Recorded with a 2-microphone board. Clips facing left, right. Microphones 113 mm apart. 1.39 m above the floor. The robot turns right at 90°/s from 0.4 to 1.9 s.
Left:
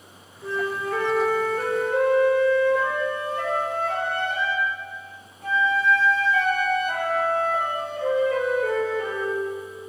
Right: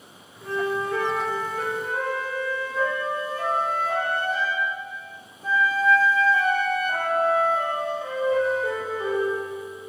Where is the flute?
65° right, 4 m; by 9.4 s 70° left, 4 m.